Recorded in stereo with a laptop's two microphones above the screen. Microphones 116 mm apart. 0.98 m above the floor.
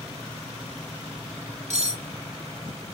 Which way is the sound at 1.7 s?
75° right (ahead or behind).